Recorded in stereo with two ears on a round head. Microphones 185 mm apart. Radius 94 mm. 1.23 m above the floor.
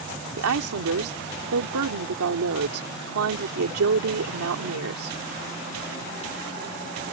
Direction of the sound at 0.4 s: 75° right (ahead or behind).